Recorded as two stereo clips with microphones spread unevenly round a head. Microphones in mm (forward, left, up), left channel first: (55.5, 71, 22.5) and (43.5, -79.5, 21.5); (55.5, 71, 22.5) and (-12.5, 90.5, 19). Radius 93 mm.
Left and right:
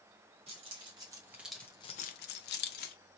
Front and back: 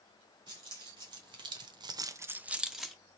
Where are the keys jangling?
155° right, 1.7 m; by 3.0 s 75° left, 1.2 m.